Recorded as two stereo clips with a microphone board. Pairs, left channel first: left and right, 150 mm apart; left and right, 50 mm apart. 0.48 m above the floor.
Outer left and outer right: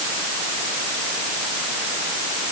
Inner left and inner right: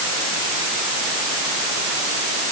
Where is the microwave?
No microwave in this recording.